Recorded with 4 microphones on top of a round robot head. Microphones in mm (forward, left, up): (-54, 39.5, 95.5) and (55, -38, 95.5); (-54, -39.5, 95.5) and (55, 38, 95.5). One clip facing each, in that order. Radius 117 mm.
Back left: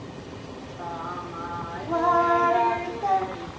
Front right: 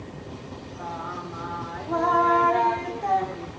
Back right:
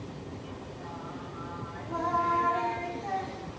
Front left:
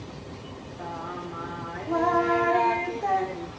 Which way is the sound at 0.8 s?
55° left.